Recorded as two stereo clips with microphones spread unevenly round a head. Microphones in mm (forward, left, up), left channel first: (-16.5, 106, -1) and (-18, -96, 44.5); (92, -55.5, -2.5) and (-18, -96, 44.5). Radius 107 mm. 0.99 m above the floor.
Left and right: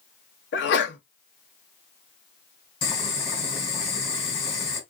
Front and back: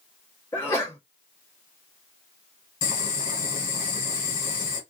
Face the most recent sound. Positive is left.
turn(degrees=25)